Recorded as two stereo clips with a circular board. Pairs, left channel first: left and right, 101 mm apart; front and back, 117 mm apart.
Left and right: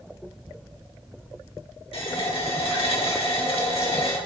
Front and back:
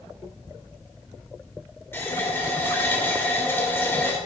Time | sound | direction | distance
1.9 | a running tap | 70° left | 1.7 m